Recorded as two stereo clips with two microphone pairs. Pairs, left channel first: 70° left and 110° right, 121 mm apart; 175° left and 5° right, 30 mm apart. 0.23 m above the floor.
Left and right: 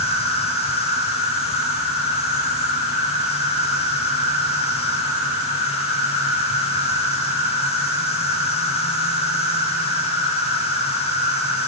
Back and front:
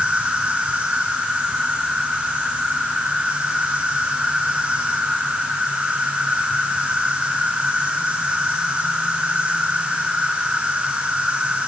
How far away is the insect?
About 2.5 m.